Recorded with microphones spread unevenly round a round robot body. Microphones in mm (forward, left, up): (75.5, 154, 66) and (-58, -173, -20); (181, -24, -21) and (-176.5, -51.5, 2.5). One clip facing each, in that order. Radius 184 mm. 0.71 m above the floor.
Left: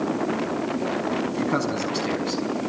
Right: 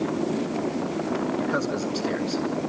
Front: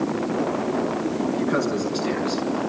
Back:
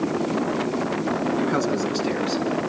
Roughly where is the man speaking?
Left.